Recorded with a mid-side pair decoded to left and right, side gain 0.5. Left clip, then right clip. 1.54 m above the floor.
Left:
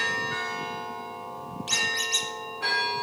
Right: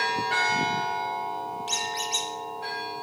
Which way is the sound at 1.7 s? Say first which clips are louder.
Left 4 dB; 20° left.